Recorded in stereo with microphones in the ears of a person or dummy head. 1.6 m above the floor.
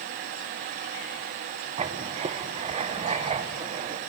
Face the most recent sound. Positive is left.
turn(degrees=-20)  # may be behind; listen again after turning